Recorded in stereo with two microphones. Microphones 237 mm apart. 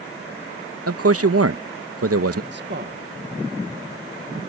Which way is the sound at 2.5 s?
50° right (ahead or behind).